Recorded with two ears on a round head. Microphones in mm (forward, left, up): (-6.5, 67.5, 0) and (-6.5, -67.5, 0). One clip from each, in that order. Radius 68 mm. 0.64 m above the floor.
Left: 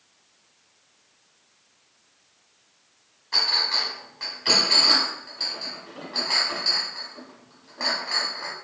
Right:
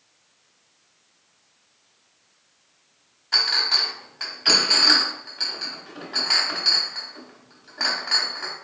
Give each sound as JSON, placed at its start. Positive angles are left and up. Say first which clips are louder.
{"t": 3.3, "sound": "a clink", "louder": "right 2 dB", "side_deg": -40, "distance_m": 1.0}